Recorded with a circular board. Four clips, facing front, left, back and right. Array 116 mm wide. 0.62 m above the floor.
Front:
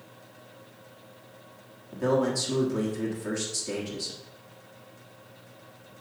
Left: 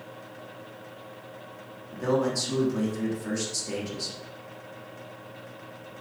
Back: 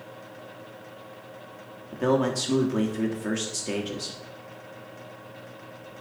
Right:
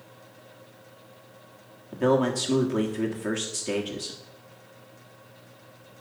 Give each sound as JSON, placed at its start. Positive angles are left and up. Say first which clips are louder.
{"t": 1.9, "sound": "a man speaking", "louder": "right 3 dB, back 2 dB", "azimuth_deg": -130, "distance_m": 1.4}